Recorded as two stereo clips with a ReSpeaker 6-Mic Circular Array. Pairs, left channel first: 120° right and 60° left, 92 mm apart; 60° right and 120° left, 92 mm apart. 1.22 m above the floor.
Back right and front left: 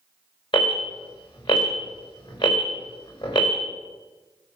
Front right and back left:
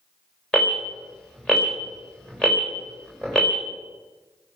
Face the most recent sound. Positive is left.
turn(degrees=-145)